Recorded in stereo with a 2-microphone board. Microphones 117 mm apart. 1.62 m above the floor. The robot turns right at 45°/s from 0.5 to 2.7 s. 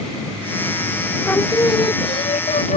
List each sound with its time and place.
1.2 s singing: 15° left; by 2.8 s 80° left